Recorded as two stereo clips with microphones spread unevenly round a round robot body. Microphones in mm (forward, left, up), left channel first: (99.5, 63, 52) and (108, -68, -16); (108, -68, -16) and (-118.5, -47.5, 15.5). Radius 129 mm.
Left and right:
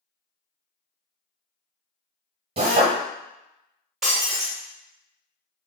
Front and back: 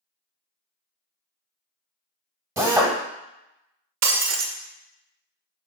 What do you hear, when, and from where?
2.6 s a drill: 105° right, 0.9 m
4.0 s breaking glass: 155° right, 0.6 m